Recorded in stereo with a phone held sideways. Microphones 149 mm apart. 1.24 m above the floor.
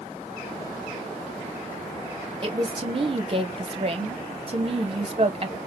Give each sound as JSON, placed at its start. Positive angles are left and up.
{"t": 2.4, "sound": "a woman speaking", "side_deg": -40, "distance_m": 0.7}